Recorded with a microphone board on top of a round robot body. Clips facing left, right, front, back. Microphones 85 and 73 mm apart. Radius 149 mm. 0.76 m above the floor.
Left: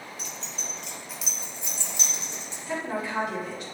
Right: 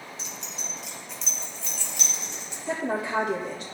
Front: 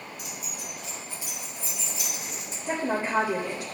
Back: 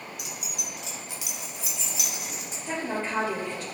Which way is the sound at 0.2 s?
155° right.